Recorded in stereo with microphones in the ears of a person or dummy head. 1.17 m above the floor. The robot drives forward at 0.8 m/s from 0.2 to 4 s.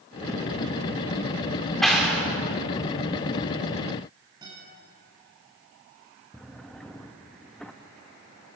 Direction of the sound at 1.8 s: Centre (ahead or behind).